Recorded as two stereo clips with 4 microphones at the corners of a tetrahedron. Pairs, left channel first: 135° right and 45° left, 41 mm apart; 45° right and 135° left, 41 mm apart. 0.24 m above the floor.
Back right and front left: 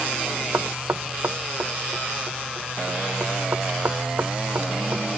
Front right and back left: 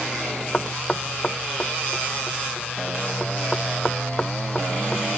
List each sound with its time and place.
0.5 s knocking: 25° left